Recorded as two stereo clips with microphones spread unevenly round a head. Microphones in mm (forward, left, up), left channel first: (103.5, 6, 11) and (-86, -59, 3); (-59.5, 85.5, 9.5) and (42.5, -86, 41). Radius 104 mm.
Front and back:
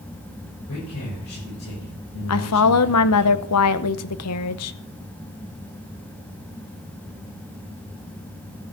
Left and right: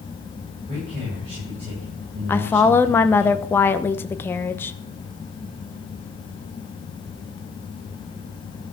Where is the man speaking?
5° left, 7.5 m.